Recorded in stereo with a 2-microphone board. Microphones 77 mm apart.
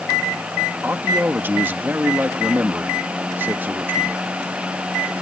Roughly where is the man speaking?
Right.